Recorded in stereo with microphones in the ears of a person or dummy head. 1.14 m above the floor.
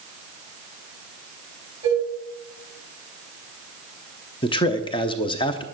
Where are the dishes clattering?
20° right (ahead or behind), 6 m.